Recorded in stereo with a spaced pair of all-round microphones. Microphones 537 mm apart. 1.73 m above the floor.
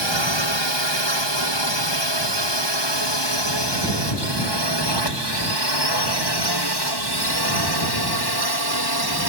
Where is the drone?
55° left (ahead or behind); by 9.3 s 45° left (ahead or behind).